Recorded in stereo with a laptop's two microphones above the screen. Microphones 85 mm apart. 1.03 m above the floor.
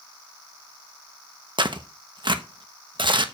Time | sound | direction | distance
1.6 | tearing paper | 60° right (ahead or behind) | 0.9 m